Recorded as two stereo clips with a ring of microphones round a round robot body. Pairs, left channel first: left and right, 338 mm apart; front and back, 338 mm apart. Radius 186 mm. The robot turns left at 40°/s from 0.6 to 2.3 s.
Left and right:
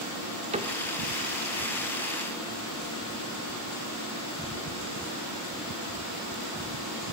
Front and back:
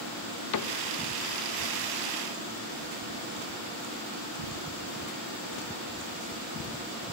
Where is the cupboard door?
20° right, 1.4 m; by 0.8 s 30° right, 1.4 m.